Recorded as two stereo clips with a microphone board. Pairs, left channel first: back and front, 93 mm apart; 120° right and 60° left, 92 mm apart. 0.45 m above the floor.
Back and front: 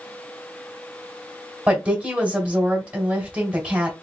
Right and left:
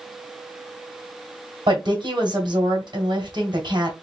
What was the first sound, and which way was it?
A woman speaking, 75° left.